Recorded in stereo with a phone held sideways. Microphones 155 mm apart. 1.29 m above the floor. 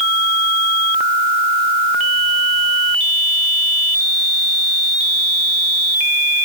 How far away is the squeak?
I don't hear a squeak.